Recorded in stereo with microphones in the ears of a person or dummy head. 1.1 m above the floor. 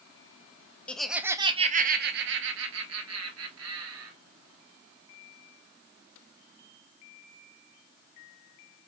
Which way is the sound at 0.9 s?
10° left (ahead or behind).